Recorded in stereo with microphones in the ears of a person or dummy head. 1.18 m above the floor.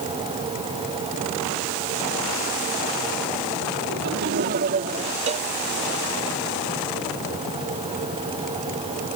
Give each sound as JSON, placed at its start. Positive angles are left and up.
{"t": 3.9, "sound": "laughter", "side_deg": -55}
{"t": 5.3, "sound": "a cowbell", "side_deg": -40}